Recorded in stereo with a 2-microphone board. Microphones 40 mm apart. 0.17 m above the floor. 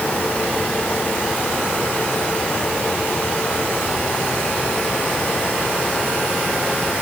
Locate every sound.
Only background noise.